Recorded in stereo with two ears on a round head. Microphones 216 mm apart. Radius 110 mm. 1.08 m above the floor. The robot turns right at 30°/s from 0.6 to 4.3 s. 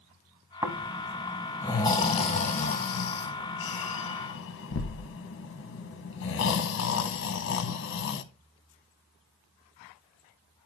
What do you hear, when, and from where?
0.6 s snoring: 15° right (ahead or behind), 0.8 m; by 8.2 s 50° left (ahead or behind), 0.8 m